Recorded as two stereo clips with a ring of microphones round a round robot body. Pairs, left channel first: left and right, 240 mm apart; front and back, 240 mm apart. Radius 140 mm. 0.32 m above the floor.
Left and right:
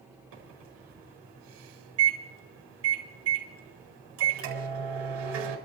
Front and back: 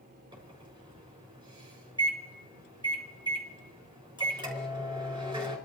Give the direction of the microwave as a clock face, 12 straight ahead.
4 o'clock.